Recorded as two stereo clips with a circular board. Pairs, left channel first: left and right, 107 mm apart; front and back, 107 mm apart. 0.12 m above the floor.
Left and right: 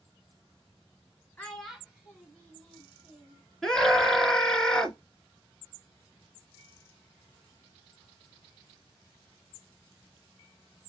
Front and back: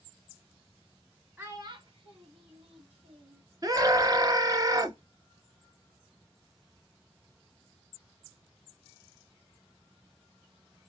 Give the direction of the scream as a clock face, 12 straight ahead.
6 o'clock.